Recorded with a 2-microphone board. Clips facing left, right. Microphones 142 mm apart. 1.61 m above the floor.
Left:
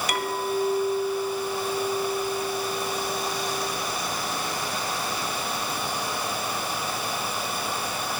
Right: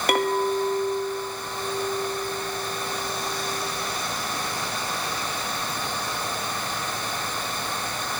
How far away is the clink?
About 1.9 m.